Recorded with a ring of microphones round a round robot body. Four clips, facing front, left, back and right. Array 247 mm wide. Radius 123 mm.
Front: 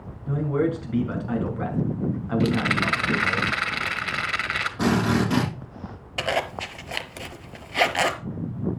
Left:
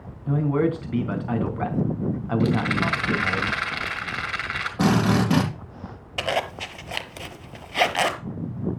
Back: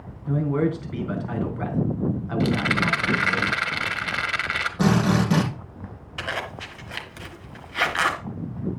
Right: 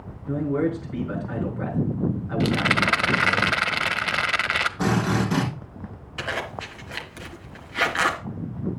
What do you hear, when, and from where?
0.3 s a man speaking: 100° left, 4 m
2.4 s a rattle: 90° right, 1.4 m
4.8 s a drill: 100° left, 7.5 m
6.2 s a zipper: 50° left, 1.1 m